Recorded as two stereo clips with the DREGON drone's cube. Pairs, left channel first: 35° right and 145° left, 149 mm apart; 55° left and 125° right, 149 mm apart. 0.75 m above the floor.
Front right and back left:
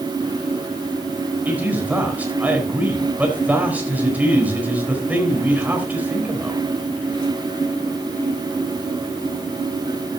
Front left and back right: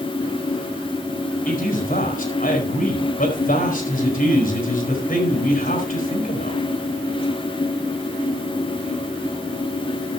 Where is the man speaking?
65° left, 4 m.